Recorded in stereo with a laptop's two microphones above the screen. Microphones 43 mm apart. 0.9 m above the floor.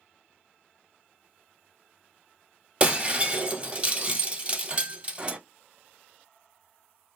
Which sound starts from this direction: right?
Breaking glass, at 2.8 s.